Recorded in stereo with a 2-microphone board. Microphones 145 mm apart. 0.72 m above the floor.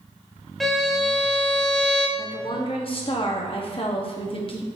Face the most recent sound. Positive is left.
turn(degrees=40)  # may be behind; listen again after turning